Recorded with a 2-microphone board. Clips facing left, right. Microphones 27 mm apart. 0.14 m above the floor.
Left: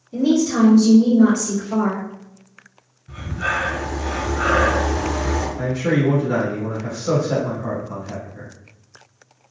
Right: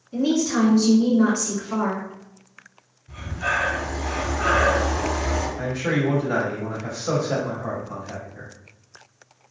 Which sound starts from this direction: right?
A woman speaking, at 0.1 s.